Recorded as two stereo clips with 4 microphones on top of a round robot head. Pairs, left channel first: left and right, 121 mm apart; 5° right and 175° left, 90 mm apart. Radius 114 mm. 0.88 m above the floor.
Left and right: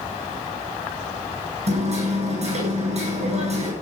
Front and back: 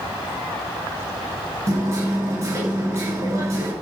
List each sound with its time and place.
1.7 s hammering: 120° right, 9.5 m